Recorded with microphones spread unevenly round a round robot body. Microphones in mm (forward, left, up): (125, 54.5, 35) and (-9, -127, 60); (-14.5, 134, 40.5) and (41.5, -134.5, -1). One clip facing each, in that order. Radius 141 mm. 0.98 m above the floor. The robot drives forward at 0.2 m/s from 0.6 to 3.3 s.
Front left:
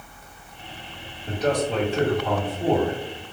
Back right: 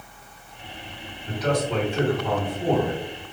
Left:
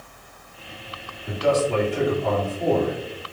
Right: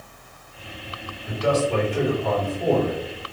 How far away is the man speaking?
About 1.9 m.